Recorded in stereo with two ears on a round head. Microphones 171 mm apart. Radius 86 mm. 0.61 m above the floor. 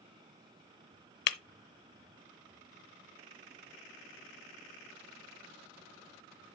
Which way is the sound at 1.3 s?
55° left (ahead or behind).